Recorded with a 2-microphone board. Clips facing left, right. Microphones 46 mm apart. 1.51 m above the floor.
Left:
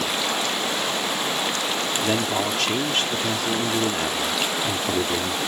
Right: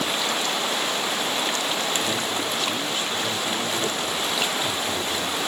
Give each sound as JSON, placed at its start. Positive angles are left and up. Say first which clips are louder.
{"t": 2.0, "sound": "a man speaking", "louder": "left 3 dB", "side_deg": 65}